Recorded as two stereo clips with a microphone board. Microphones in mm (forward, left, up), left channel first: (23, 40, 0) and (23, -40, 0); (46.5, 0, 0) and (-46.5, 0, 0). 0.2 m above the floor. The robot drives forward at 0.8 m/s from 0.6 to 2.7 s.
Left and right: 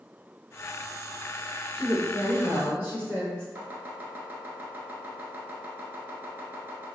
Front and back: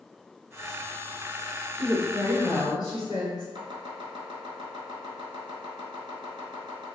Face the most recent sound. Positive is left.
turn(degrees=-155)